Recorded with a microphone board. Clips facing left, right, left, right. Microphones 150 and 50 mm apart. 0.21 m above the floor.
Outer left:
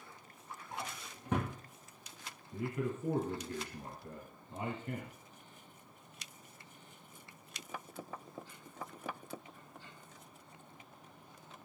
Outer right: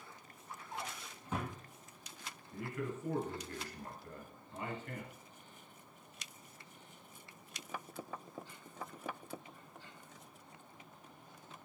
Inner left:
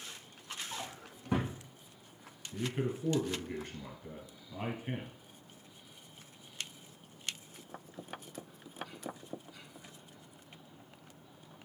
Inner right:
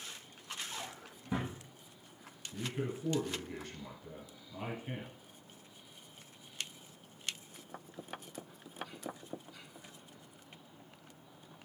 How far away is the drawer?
About 1.7 m.